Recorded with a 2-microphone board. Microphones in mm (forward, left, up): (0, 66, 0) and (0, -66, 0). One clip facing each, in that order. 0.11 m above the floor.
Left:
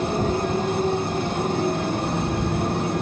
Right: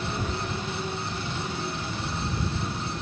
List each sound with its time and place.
0.0 s a motorcycle: 45° left (ahead or behind); by 3.0 s 60° left (ahead or behind)